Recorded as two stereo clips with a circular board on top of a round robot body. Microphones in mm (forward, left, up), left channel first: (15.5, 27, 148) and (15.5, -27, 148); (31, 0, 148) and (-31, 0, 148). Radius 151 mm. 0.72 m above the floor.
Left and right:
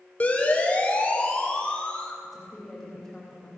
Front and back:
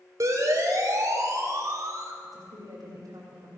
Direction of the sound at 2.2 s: 175° left.